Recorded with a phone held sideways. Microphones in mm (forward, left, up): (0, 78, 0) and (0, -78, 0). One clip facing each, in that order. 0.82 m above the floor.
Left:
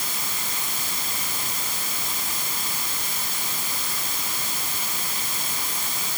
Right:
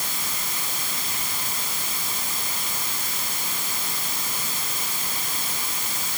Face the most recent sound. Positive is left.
No sound to turn to.